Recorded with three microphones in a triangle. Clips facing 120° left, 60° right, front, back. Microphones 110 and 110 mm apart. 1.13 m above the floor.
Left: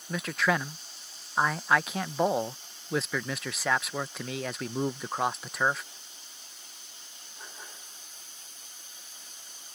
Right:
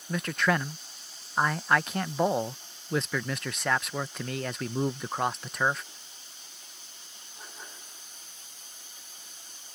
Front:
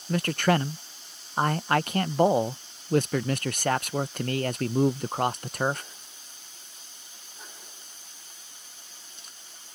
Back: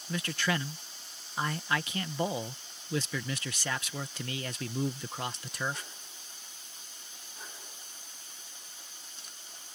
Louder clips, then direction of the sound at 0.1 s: Right 1 dB, front 9 dB; 30° left.